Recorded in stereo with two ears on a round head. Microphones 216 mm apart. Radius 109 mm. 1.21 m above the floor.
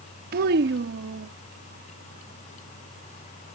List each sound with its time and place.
0.3 s a child speaking: 40° right (ahead or behind); by 1.3 s 50° right (ahead or behind)